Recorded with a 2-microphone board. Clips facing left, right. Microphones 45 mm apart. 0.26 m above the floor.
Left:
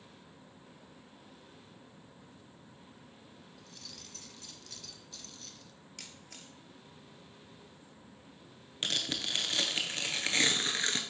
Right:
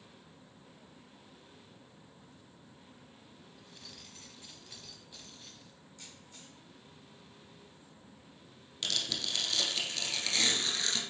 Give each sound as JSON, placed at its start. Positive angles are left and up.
{"t": 3.6, "sound": "keys jangling", "side_deg": -15, "distance_m": 1.0}
{"t": 6.0, "sound": "a camera shutter", "side_deg": 75, "distance_m": 1.4}
{"t": 8.8, "sound": "tearing paper", "side_deg": 30, "distance_m": 1.2}